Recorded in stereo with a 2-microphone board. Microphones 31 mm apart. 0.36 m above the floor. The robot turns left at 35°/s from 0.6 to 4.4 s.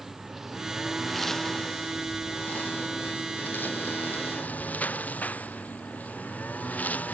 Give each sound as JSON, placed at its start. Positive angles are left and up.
{"t": 0.0, "sound": "a lawn mower", "azimuth_deg": -170}